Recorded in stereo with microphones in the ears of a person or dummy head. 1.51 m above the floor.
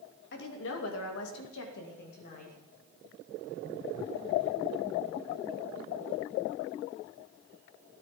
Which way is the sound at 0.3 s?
60° left (ahead or behind).